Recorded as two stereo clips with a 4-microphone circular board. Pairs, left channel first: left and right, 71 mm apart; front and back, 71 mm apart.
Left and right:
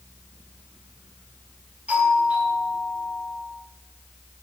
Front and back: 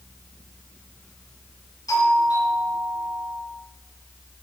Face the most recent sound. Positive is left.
turn(degrees=-20)